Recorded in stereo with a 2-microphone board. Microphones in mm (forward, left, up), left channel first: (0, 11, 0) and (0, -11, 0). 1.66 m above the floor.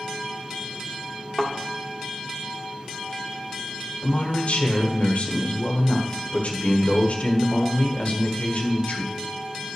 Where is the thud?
40° left (ahead or behind), 1.6 m.